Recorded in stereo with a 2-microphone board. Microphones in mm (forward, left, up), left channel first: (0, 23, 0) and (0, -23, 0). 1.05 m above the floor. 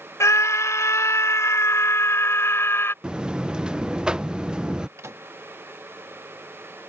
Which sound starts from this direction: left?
A scream, at 0.2 s.